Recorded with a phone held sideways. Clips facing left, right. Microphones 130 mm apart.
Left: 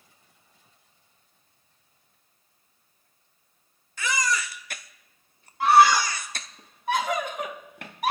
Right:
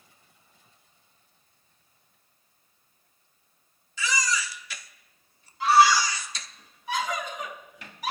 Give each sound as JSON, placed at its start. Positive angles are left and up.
{"t": 4.0, "sound": "a baby crying", "side_deg": 55, "distance_m": 0.6}
{"t": 5.6, "sound": "a scream", "side_deg": 55, "distance_m": 1.4}